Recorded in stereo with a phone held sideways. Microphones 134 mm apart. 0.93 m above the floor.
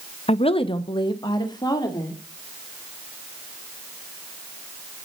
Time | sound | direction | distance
0.3 | a woman speaking | 50° left (ahead or behind) | 0.6 m